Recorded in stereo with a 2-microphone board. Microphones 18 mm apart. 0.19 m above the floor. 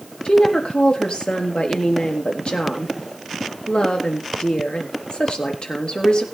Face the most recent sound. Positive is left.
turn(degrees=70)  # may be behind; listen again after turning